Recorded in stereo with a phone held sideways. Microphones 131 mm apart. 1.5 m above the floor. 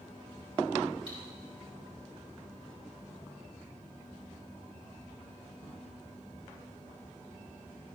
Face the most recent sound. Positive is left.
turn(degrees=-45)  # may be behind; listen again after turning